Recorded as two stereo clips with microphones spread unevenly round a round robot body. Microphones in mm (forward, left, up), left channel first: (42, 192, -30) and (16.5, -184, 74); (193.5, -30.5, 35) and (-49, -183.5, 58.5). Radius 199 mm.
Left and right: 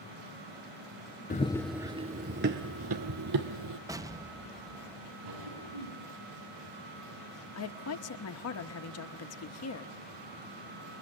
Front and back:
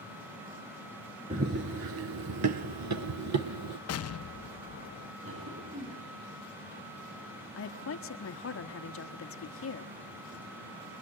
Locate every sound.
1.3 s running footsteps: 165° left, 0.7 m; by 3.8 s 130° right, 1.9 m
3.9 s an explosion: 5° right, 0.5 m
5.2 s a cough: 100° right, 6.5 m
7.5 s a woman speaking: 60° left, 1.3 m